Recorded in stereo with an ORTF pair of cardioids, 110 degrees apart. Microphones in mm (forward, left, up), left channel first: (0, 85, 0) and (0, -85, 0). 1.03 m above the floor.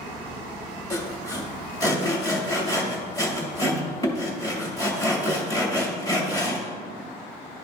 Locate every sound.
0.9 s sawing: 20° left, 2 m